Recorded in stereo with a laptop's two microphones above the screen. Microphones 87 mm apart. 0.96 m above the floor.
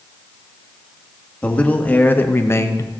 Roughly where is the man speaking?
Centre.